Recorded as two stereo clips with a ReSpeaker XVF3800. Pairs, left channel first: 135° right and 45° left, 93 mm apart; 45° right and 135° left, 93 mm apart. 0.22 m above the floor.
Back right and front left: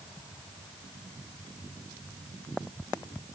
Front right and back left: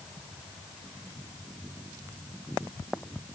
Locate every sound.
Only background noise.